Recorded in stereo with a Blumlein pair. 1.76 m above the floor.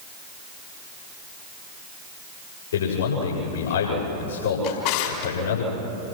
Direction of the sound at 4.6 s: 45° left.